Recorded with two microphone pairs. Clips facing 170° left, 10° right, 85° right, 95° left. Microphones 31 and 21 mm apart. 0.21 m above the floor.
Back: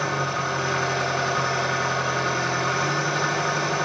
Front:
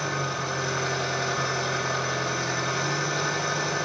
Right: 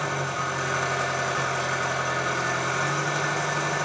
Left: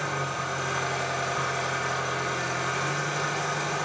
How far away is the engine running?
About 8.5 m.